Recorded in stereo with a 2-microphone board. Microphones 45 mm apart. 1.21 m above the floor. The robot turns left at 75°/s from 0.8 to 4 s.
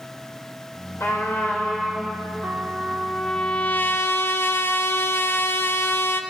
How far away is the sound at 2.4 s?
About 1.3 m.